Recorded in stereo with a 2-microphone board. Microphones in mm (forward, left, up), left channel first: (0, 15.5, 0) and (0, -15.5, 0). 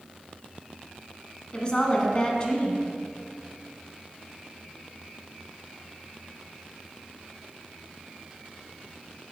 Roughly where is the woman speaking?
Left.